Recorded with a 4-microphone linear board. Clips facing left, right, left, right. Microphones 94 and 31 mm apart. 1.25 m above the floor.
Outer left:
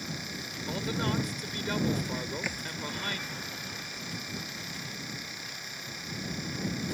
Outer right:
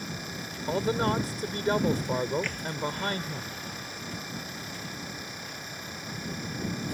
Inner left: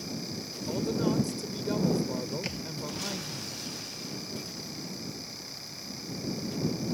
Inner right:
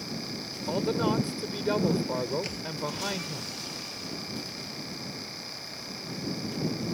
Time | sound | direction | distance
0.7 | a man speaking | 35° right (ahead or behind) | ?
2.4 | a thud | 10° left (ahead or behind) | ?